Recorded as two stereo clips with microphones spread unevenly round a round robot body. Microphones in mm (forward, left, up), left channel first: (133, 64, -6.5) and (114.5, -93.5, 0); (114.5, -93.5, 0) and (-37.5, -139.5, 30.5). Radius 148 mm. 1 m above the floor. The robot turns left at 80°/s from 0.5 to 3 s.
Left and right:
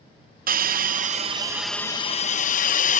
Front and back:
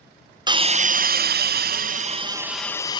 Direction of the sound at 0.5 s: 95° right.